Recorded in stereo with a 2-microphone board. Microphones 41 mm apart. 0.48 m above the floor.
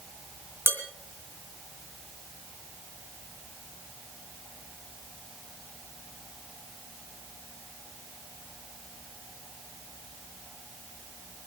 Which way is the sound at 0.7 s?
80° right.